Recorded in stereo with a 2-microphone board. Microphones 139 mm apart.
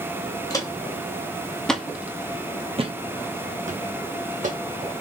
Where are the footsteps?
30° left (ahead or behind), 1.3 m; by 4.6 s 75° right (ahead or behind), 1.4 m.